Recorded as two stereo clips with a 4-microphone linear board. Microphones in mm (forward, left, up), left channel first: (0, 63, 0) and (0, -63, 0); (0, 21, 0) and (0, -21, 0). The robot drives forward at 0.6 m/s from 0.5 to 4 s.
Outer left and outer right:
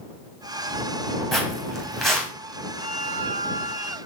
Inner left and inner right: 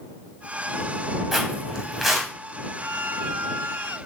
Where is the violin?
45° right (ahead or behind), 1.6 m; by 4.0 s 75° right (ahead or behind), 1.2 m.